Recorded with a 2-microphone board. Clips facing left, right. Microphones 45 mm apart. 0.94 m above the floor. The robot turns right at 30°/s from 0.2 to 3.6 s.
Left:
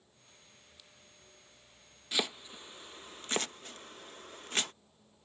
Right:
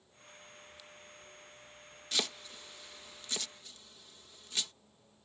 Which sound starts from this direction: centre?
Chopping, at 2.1 s.